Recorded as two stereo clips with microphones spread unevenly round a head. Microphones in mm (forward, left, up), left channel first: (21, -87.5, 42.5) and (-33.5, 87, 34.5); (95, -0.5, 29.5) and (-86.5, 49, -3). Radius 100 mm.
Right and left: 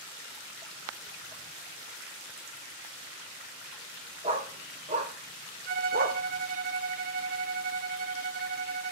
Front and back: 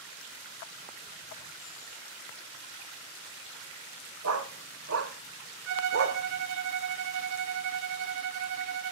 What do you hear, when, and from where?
4.2 s a dog barking: 170° left, 2.5 m; by 6.2 s 140° left, 2 m
5.7 s a violin: 150° left, 1.1 m